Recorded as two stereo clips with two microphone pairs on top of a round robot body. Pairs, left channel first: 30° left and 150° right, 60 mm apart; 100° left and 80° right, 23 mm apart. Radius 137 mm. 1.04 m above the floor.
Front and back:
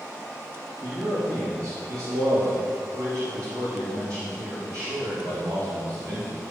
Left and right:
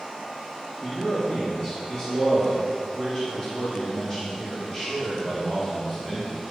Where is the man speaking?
175° right, 2 m.